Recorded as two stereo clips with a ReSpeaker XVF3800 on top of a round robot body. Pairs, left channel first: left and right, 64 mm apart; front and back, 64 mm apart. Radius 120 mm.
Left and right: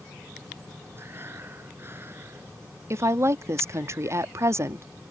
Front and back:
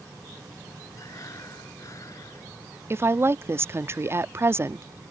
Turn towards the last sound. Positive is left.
turn(degrees=-130)